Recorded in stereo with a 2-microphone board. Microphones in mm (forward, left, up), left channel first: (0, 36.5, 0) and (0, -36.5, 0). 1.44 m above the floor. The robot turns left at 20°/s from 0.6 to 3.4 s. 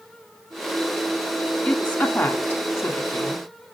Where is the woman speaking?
15° left (ahead or behind), 3 m; by 3.5 s 50° left (ahead or behind), 3 m.